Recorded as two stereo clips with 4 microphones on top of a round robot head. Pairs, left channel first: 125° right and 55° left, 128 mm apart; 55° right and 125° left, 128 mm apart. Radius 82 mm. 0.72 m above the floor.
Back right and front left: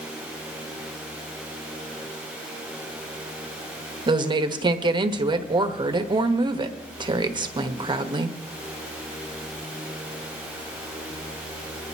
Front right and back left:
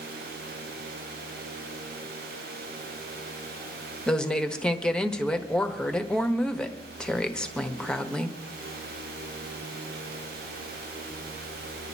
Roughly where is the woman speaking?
Ahead left.